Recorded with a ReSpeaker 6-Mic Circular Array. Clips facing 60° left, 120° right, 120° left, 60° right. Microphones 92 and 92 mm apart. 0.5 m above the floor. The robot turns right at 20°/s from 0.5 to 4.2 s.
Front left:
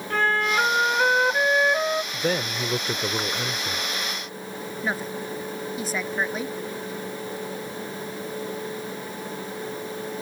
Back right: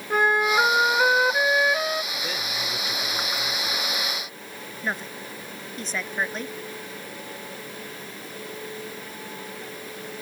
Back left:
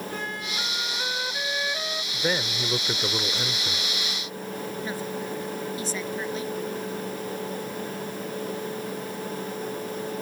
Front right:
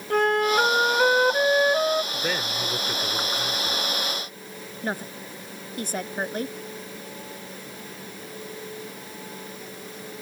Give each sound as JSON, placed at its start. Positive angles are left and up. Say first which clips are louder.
{"t": 0.1, "sound": "a flute", "louder": "back right 2 dB, front right 13 dB", "azimuth_deg": -45}
{"t": 2.1, "sound": "a man speaking", "louder": "front left 6 dB, back left 1 dB", "azimuth_deg": 40}
{"t": 4.8, "sound": "a woman speaking", "louder": "front left 2 dB, front right 4 dB", "azimuth_deg": -25}